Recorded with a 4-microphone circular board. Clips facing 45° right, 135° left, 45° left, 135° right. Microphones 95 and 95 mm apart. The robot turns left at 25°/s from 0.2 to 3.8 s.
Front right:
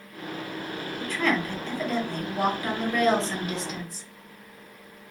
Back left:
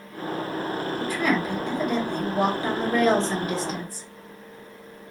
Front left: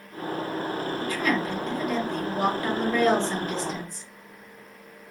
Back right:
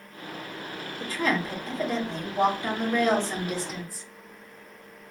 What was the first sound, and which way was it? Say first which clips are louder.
A woman speaking: back left 1 dB, back right 1 dB; 145° right.